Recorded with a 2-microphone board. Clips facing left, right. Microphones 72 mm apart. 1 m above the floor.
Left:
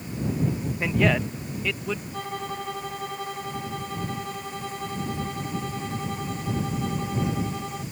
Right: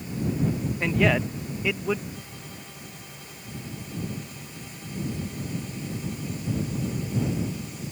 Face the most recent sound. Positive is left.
turn(degrees=70)  # may be behind; listen again after turning